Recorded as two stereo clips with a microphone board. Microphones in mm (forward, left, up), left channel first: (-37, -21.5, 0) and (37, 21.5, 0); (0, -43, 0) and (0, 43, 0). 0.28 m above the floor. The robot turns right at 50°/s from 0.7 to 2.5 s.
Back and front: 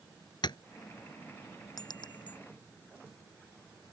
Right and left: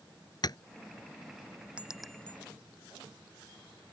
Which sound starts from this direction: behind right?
Tapping, at 0.4 s.